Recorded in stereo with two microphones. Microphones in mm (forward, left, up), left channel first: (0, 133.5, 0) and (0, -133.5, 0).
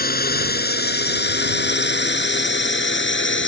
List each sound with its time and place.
0.0 s a drone: 35° left (ahead or behind); by 3.5 s 50° left (ahead or behind)